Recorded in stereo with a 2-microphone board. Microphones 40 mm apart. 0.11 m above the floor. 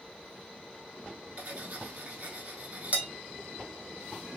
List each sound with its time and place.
1.4 s cutlery clinking: 40° right (ahead or behind), 1.0 m